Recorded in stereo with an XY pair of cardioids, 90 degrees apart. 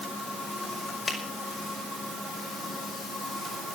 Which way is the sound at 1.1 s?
35° left.